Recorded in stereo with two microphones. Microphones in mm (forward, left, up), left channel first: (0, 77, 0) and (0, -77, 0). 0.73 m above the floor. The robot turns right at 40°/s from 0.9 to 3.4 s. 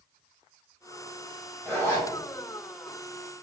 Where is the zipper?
10° left (ahead or behind), 1.3 m; by 2.1 s 25° left (ahead or behind), 1.3 m.